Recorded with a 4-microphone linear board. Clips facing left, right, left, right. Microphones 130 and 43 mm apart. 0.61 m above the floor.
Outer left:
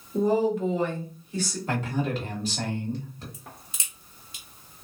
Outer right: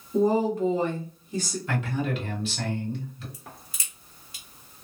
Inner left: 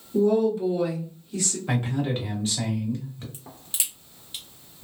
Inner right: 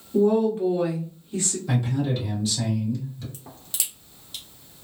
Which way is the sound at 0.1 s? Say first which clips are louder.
Outer right 1 dB, inner right 1 dB; 40° right (ahead or behind).